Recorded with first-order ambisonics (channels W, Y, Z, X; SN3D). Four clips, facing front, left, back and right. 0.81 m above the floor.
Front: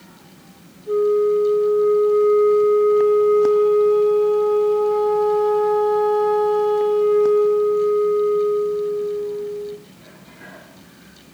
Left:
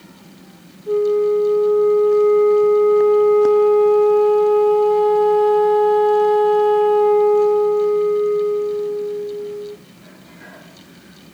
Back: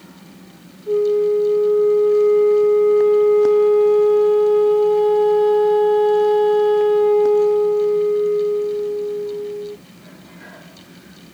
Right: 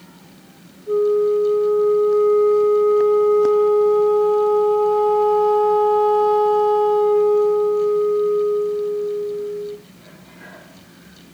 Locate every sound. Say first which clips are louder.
0.9 s a flute: even, back 1 dB; 115° left, 9.5 m